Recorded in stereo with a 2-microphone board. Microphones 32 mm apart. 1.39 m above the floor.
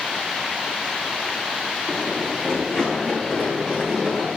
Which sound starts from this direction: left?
Running footsteps, at 1.9 s.